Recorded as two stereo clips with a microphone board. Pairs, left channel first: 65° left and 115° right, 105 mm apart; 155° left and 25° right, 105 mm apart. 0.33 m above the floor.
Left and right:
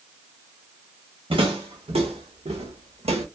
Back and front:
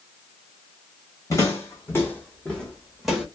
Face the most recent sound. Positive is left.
turn(degrees=-105)